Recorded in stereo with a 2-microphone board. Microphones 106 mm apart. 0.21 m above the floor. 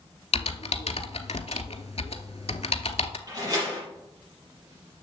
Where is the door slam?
40° right (ahead or behind), 4 m.